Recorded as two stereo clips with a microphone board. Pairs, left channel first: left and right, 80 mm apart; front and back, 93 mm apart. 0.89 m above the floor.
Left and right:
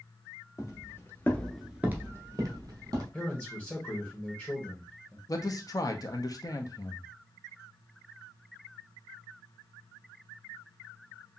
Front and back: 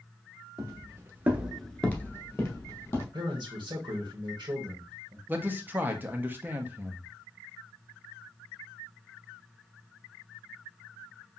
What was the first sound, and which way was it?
Footsteps, 130° left.